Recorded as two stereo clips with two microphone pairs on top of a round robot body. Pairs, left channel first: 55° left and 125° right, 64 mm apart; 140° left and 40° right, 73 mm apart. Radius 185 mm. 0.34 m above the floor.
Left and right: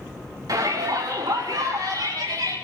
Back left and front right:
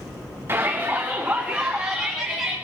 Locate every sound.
0.5 s a shout: 100° right, 3.5 m; by 2.5 s 125° right, 6 m